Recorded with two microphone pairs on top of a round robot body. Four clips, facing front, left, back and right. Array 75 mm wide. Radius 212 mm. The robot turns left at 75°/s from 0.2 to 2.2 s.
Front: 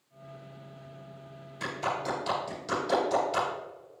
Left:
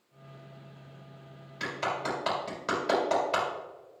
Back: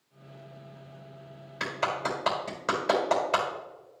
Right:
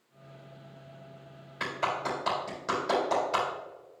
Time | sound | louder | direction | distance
1.6 | a clap | right 1 dB, back 2 dB | 145° right | 3.5 m